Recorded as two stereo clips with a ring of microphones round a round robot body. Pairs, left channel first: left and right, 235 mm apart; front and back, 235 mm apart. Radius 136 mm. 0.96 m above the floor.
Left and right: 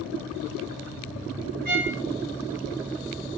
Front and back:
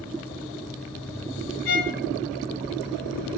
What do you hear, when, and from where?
1.6 s a violin: 35° right, 5 m